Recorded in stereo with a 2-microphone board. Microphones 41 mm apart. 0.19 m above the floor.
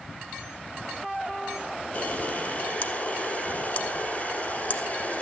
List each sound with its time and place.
1.9 s a camera shutter: 35° left (ahead or behind), 1.6 m